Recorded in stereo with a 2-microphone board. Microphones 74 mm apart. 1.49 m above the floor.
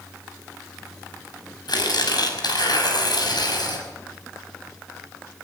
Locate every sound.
1.7 s tearing paper: 70° left (ahead or behind), 6 m